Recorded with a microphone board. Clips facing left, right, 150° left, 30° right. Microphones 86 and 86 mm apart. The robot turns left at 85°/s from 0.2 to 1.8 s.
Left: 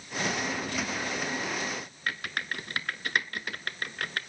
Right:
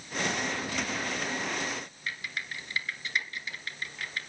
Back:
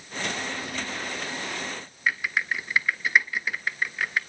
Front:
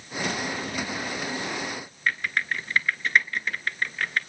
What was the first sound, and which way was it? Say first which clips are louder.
Typing on a keyboard: left 6 dB, even; 70° left.